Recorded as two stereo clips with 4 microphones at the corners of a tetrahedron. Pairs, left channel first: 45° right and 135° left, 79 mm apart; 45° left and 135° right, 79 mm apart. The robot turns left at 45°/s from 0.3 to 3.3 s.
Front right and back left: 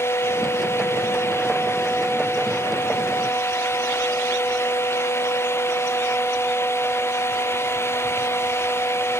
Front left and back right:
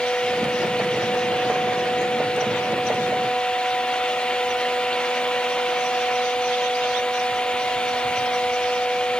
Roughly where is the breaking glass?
No breaking glass in this recording.